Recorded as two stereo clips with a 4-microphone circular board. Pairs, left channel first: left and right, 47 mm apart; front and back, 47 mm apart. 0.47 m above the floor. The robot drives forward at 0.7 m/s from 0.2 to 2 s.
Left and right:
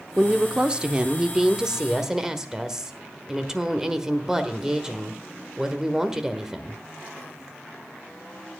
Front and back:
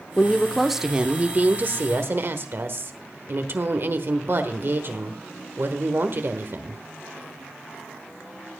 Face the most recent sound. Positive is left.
turn(degrees=-165)